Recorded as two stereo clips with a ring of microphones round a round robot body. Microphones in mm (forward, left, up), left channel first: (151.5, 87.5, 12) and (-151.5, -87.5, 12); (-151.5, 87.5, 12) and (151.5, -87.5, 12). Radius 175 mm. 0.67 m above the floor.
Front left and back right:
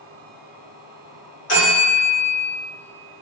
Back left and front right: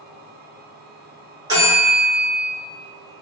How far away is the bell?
About 1.7 m.